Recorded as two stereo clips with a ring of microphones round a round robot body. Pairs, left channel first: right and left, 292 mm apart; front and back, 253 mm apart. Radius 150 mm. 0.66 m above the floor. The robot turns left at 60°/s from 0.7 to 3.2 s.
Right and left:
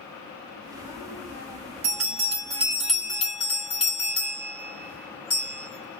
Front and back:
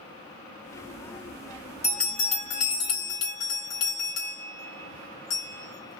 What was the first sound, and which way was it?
A bell, 65° left.